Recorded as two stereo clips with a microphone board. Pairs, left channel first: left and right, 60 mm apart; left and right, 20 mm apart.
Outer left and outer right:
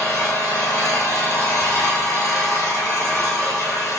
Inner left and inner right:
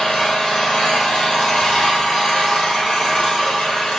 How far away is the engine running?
About 1.8 m.